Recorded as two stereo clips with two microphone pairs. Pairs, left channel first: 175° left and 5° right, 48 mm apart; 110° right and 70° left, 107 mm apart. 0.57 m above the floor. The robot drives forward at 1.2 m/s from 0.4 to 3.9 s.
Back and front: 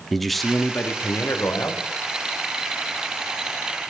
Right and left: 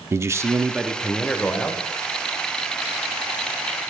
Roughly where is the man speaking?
Left.